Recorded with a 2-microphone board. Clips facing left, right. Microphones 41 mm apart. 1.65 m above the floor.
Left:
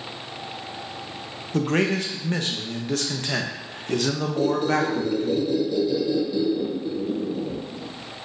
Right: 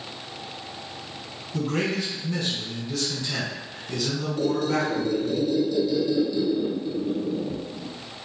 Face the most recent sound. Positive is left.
turn(degrees=10)  # may be behind; listen again after turning